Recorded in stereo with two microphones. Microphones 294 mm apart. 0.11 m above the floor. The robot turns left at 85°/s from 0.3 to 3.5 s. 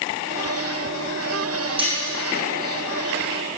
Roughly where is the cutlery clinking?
Centre.